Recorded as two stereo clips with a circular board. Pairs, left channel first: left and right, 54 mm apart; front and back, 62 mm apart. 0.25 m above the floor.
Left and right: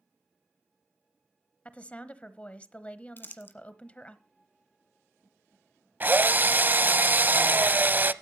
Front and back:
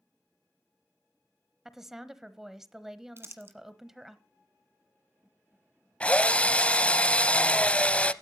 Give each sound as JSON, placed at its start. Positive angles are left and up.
{"t": 1.6, "sound": "a woman speaking", "azimuth_deg": 105, "distance_m": 1.0}
{"t": 3.2, "sound": "crumpling", "azimuth_deg": 135, "distance_m": 1.4}
{"t": 6.0, "sound": "a drill", "azimuth_deg": -60, "distance_m": 0.6}